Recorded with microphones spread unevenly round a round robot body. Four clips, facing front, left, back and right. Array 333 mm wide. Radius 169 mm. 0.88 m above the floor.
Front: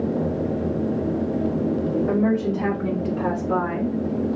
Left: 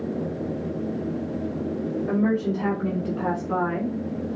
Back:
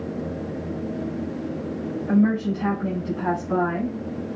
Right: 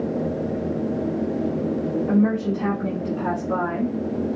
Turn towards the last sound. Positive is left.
turn(degrees=5)